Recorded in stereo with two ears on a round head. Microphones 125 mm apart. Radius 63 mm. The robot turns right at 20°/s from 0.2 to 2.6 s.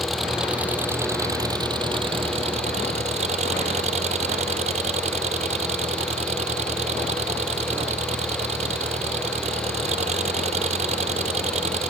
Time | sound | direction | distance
0.0 | an engine running | straight behind | ?